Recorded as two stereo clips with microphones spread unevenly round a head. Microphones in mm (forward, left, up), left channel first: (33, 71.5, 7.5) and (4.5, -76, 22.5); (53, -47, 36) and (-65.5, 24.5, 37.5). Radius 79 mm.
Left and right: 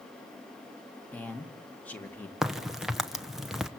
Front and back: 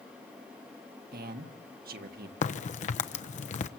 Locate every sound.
1.1 s a man speaking: 160° left, 1.4 m
2.4 s a crack: 10° right, 1.0 m